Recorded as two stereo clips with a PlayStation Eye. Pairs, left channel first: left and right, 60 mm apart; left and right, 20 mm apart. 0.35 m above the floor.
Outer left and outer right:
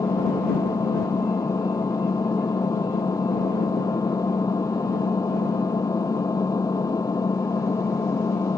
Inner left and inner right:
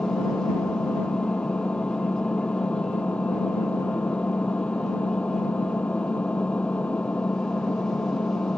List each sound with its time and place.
0.0 s an engine running: 75° left (ahead or behind)